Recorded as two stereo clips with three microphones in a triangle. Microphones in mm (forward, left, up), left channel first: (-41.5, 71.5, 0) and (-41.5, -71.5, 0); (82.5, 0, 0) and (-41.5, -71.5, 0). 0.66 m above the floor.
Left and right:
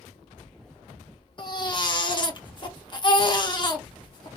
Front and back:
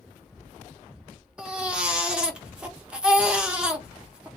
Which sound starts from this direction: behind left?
A baby crying, at 1.4 s.